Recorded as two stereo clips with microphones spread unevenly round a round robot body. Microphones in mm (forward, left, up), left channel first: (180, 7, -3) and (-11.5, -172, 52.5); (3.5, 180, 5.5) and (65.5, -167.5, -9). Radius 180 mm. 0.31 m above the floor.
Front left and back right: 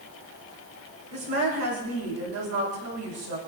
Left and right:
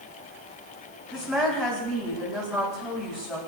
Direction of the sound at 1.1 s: 170° right.